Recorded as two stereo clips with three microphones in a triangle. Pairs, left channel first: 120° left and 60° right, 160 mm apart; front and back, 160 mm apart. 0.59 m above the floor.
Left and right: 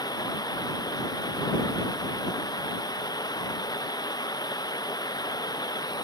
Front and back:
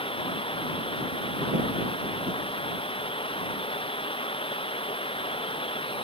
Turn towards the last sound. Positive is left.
turn(degrees=55)